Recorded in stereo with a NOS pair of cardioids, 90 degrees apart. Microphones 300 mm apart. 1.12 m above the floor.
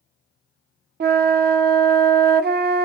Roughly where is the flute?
Ahead right.